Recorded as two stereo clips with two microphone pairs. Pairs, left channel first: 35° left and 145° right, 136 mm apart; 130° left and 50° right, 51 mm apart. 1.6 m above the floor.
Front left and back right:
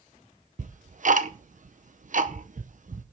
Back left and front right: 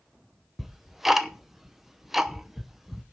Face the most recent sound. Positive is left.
turn(degrees=-135)